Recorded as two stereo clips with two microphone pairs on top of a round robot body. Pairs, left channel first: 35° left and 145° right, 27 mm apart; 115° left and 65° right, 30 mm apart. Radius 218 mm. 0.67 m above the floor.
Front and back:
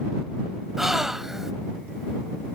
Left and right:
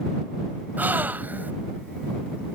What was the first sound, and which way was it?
A gasp, 70° right.